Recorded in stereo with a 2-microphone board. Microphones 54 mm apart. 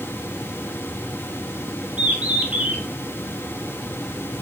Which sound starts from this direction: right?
A bird, at 2.0 s.